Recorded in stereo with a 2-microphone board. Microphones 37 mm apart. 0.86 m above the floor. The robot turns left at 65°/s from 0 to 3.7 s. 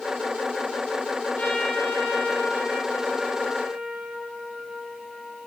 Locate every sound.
1.4 s a trumpet: 130° left, 2.5 m; by 5.5 s 20° right, 2.5 m